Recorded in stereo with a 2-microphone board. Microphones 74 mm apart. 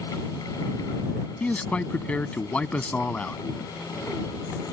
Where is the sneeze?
No sneeze in this recording.